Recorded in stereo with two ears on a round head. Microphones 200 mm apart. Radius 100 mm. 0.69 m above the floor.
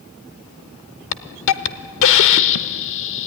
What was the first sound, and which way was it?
A hiss, 60° left (ahead or behind).